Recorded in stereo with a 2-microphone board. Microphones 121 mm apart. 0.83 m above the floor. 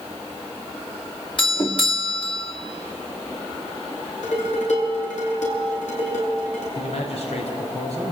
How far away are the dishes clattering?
About 8.5 m.